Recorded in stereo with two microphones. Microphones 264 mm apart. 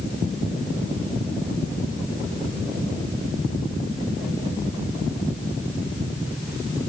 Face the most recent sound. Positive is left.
No sound to turn to.